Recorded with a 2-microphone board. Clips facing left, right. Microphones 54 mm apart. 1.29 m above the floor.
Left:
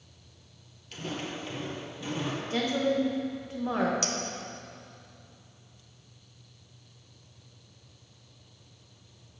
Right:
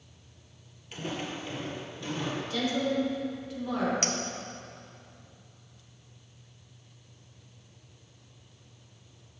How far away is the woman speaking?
About 1.6 m.